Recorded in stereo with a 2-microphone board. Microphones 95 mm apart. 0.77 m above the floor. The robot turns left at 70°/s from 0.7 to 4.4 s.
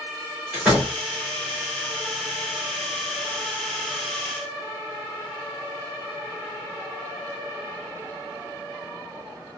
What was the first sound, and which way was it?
A door slam, 15° right (ahead or behind).